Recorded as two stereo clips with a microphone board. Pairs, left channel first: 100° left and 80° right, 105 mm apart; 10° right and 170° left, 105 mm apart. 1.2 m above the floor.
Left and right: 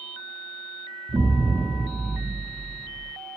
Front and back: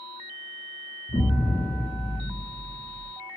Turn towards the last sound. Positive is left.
turn(degrees=-30)